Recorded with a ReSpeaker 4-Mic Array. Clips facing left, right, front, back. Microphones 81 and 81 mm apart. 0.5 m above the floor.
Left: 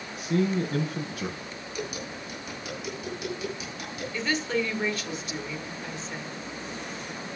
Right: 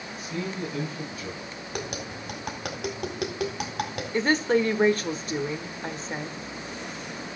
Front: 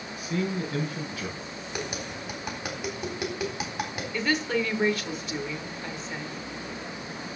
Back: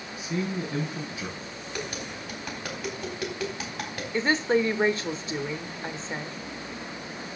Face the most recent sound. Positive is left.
turn(degrees=-125)